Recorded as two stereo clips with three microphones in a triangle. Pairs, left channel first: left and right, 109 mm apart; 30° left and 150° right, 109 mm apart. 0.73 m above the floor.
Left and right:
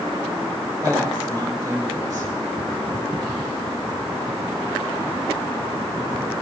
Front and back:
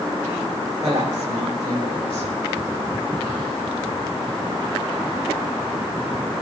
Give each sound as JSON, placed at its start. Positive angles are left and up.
{"t": 0.8, "sound": "a woman speaking", "azimuth_deg": -145, "distance_m": 3.5}